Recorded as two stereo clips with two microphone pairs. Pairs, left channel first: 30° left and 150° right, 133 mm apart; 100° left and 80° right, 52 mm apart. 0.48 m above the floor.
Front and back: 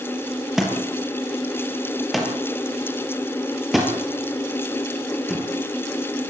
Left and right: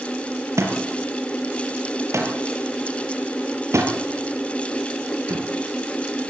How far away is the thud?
About 4.5 m.